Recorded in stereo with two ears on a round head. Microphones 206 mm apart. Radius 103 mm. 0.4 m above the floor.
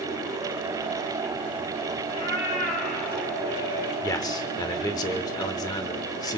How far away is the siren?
I don't hear a siren.